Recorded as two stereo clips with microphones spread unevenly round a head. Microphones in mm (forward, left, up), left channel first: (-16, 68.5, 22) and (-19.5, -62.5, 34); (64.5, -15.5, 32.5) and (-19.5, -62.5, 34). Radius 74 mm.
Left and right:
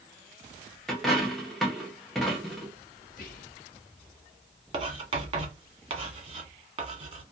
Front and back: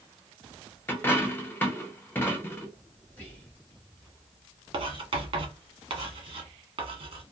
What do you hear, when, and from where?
0.9 s a dropped coin: 10° right, 0.5 m
3.1 s whispering: 110° left, 0.7 m
4.7 s writing: 140° right, 1.1 m